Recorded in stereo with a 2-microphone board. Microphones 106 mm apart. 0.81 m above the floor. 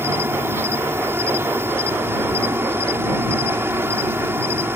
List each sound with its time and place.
0.0 s an insect: 25° right (ahead or behind)